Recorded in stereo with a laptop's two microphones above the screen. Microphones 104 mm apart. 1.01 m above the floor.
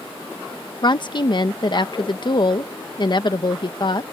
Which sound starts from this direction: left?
A woman speaking, at 0.8 s.